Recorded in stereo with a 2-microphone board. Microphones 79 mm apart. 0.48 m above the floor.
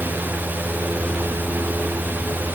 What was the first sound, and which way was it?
Only background noise.